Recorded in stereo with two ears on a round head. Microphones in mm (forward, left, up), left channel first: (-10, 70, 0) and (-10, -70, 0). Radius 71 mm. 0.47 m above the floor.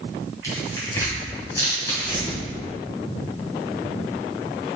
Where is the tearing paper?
20° left (ahead or behind), 2.5 m.